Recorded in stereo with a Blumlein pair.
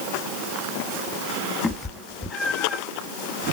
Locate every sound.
1.6 s a cat meowing: 5° left, 1.1 m; by 2.8 s 20° left, 0.6 m